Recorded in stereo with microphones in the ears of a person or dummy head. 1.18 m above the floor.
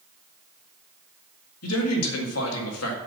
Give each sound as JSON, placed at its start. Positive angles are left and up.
{"t": 1.6, "sound": "a man speaking", "side_deg": 85, "distance_m": 1.8}